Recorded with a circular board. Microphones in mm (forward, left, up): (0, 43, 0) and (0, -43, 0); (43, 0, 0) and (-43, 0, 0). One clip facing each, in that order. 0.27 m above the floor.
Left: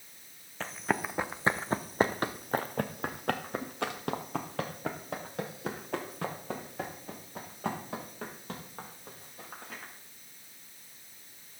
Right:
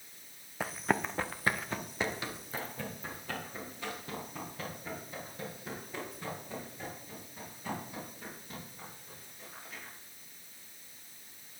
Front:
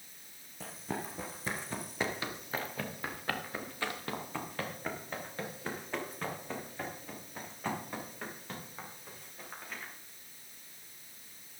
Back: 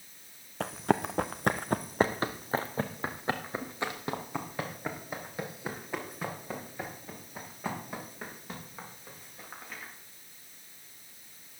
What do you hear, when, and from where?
0.6 s running footsteps: 165° right, 0.7 m; by 9.9 s 95° left, 5 m